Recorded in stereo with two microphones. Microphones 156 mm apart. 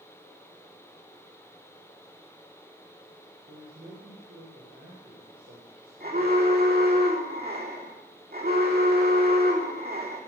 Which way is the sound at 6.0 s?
70° right (ahead or behind).